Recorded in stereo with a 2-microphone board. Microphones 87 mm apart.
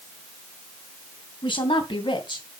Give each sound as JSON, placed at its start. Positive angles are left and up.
{"t": 1.4, "sound": "a woman speaking", "side_deg": 75, "distance_m": 2.5}